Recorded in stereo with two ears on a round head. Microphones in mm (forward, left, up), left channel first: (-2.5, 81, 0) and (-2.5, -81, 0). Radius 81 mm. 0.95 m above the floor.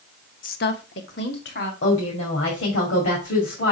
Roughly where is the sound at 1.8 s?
Left.